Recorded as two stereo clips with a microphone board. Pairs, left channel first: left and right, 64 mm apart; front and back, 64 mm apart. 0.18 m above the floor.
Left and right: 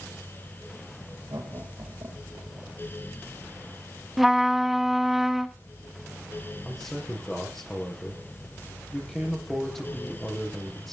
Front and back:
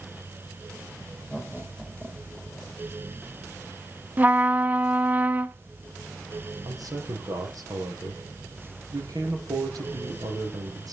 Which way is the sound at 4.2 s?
170° right.